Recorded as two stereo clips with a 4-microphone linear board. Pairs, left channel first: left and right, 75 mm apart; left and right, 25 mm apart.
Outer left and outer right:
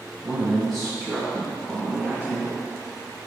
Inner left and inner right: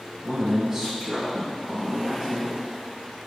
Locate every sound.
0.2 s a man speaking: 10° right (ahead or behind), 1.5 m; by 2.6 s 20° left (ahead or behind), 2.5 m